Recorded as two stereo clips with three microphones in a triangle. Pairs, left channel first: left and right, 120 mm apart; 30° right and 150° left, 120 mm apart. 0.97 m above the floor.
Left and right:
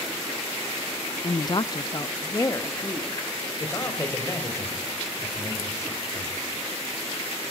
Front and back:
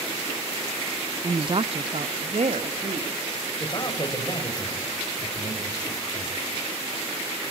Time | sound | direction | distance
1.2 | a woman speaking | 110° left | 0.6 m
3.6 | a man speaking | 25° left | 4.5 m